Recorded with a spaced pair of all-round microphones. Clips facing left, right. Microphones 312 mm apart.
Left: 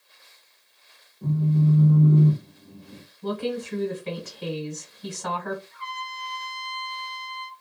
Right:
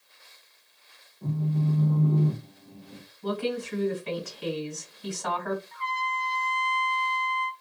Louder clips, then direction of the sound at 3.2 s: Left 1 dB; 45° left (ahead or behind).